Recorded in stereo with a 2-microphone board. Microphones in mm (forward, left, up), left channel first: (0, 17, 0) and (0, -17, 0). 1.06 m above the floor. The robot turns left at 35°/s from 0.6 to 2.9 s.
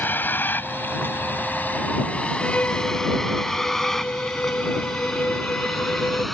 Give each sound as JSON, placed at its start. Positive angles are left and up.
{"t": 0.0, "sound": "a vehicle", "side_deg": 75}
{"t": 2.4, "sound": "a violin", "side_deg": 45}